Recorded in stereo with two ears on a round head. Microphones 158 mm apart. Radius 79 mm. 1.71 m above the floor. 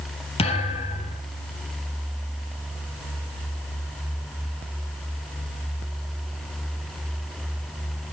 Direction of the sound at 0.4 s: 35° left (ahead or behind).